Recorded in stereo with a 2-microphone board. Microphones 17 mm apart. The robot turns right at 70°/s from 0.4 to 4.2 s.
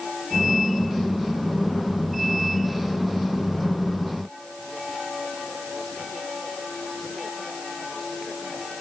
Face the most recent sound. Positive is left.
No sound to turn to.